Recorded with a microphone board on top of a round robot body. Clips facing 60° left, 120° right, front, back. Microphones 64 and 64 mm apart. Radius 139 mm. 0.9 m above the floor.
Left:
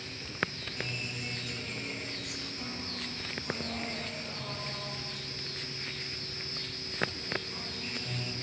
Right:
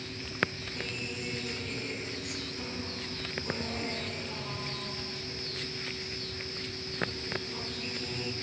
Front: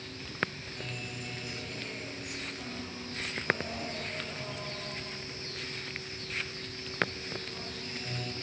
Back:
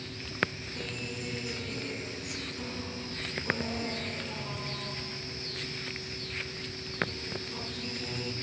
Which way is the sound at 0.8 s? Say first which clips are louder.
Right 1 dB, back 3 dB; 155° right.